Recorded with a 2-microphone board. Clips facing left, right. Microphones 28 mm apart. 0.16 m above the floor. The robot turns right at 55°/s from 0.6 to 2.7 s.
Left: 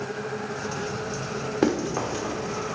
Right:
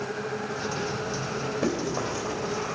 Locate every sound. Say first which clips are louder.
1.6 s running footsteps: left 6 dB; 70° left (ahead or behind), 2.5 m; by 2.4 s 30° left (ahead or behind), 2.5 m